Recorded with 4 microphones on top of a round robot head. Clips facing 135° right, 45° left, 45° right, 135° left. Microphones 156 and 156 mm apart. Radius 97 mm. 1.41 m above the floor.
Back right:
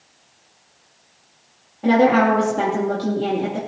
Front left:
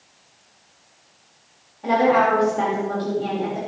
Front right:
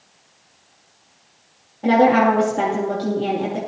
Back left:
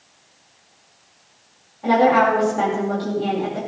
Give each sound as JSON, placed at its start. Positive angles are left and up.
{"t": 1.8, "sound": "a woman speaking", "azimuth_deg": -95, "distance_m": 3.0}